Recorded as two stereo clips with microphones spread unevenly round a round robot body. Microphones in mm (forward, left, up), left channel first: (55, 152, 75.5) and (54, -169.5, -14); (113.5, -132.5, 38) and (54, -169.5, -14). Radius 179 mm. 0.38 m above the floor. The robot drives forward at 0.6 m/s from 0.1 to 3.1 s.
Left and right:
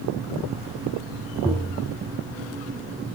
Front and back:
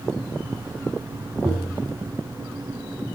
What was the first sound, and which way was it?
Tapping, 170° right.